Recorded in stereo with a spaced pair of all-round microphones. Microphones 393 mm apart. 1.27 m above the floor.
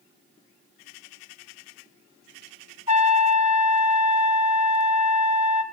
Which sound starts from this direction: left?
A trumpet, at 2.9 s.